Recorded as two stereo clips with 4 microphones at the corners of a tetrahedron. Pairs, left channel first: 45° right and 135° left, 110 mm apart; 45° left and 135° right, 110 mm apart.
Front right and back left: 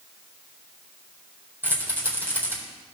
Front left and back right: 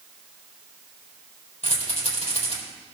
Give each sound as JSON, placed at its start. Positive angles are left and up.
{"t": 1.6, "sound": "a rattle", "azimuth_deg": 65, "distance_m": 4.0}